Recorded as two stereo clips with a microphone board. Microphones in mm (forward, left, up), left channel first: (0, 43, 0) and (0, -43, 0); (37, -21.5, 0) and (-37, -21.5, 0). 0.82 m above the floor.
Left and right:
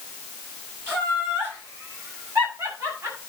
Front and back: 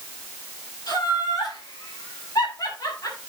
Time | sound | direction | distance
0.9 | laughter | 25° right | 7.5 m